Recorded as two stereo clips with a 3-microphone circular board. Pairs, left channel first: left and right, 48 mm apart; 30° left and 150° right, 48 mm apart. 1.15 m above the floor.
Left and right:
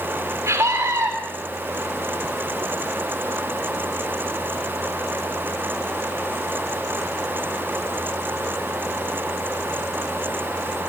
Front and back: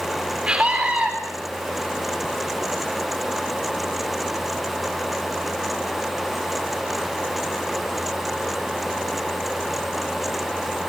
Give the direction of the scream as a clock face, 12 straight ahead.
3 o'clock.